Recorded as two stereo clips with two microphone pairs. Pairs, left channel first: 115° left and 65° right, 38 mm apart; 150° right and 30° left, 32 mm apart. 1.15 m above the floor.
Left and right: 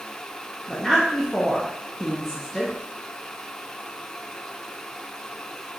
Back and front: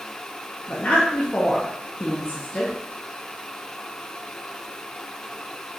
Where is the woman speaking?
165° right, 0.6 m.